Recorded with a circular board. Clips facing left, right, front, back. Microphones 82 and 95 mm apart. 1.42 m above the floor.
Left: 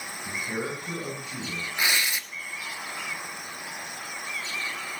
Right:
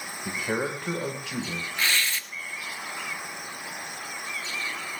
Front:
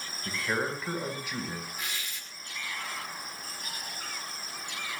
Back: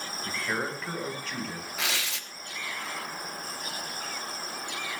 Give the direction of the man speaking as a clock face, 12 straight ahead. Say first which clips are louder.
Right 3 dB, front 1 dB; 3 o'clock.